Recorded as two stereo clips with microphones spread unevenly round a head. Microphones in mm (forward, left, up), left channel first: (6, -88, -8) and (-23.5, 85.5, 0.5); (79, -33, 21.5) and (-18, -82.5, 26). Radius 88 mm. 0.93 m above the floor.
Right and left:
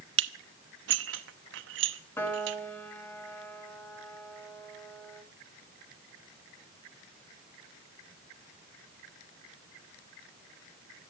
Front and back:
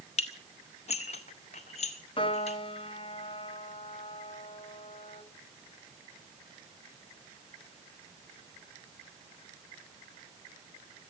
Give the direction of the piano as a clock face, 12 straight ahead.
12 o'clock.